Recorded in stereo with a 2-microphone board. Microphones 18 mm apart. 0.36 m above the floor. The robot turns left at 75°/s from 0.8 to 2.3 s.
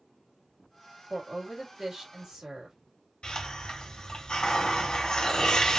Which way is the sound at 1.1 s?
5° right.